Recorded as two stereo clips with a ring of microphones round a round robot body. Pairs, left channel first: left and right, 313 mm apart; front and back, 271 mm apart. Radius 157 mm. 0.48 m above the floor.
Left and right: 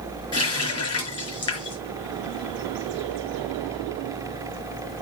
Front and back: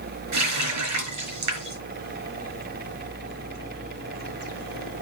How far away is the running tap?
About 4.5 m.